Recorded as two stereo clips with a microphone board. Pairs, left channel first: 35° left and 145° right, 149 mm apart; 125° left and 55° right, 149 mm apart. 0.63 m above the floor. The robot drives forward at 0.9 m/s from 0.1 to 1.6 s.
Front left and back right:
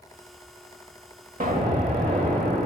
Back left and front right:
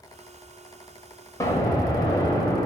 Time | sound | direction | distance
1.4 | an explosion | 170° right | 1.2 m